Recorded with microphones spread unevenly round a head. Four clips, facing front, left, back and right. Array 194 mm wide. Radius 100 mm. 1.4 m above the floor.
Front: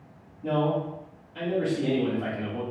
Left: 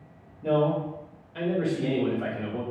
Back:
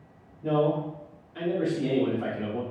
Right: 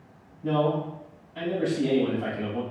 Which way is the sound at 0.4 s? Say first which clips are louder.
Left 1 dB, back 1 dB; 105° left.